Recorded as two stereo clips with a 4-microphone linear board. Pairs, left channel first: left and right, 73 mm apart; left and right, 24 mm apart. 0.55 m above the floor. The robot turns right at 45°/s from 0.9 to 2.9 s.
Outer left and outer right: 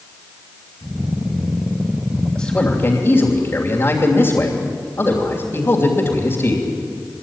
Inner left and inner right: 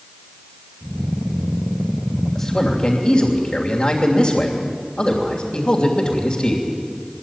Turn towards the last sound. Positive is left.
turn(degrees=40)  # may be behind; listen again after turning